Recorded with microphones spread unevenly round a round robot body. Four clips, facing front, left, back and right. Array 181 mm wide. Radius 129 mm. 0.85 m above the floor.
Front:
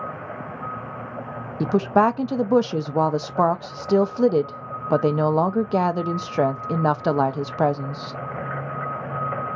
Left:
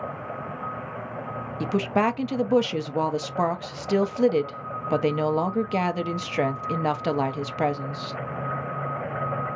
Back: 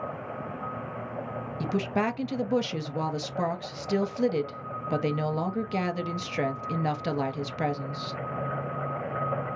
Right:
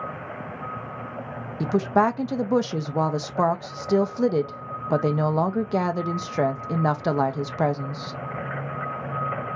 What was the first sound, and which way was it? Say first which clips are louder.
A woman speaking: right 3 dB, front 10 dB; 5° right.